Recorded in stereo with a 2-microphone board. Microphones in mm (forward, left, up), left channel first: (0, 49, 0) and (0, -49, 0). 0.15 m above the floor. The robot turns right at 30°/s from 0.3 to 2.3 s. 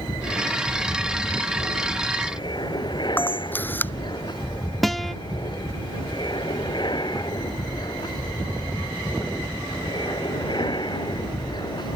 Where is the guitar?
5° left (ahead or behind).